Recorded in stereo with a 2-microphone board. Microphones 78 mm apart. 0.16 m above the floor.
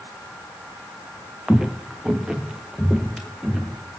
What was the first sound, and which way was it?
Footsteps, 10° right (ahead or behind).